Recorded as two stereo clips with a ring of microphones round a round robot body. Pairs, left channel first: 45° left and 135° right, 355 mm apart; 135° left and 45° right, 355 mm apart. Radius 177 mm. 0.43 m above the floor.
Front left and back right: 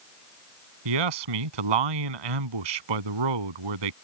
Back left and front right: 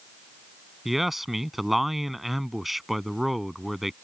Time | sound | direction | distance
0.8 | a man speaking | 135° right | ?